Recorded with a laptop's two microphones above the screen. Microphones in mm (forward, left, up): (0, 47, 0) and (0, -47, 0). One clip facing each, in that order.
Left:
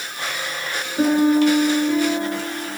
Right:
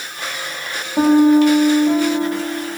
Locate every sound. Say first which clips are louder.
1.0 s a piano: right 5 dB; 85° right, 8.5 m